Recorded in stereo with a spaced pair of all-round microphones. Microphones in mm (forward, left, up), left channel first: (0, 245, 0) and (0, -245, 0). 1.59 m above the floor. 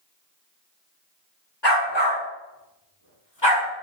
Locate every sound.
1.6 s a dog barking: 60° left (ahead or behind), 5 m